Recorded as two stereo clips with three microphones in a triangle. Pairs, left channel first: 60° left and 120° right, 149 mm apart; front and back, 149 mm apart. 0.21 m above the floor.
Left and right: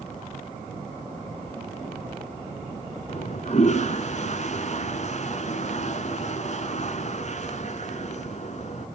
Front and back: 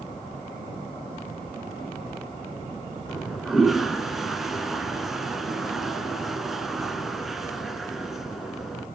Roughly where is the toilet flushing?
Left.